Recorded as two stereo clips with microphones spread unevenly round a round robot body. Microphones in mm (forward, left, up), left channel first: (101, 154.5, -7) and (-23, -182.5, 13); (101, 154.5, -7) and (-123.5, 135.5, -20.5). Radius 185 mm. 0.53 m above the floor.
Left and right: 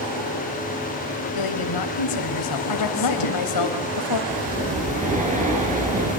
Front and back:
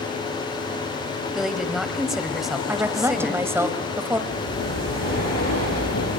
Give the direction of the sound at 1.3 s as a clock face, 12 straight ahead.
9 o'clock.